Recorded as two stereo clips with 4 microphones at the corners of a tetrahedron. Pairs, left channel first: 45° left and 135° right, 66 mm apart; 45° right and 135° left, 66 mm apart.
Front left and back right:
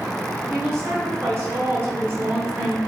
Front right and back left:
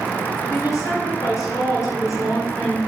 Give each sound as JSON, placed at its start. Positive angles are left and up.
{"t": 0.5, "sound": "a woman speaking", "azimuth_deg": -85, "distance_m": 4.0}